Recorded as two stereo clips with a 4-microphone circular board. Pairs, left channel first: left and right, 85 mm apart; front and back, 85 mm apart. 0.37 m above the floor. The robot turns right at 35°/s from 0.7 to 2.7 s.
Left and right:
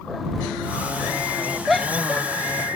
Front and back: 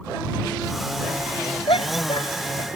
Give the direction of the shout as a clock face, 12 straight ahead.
12 o'clock.